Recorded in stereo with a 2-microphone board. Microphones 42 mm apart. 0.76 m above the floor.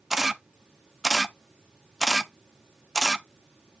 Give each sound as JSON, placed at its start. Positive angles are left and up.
{"t": 0.1, "sound": "a camera shutter", "side_deg": -10, "distance_m": 0.5}